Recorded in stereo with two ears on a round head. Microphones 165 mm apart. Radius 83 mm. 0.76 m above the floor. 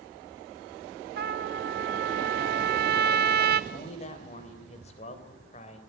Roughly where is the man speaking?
Left.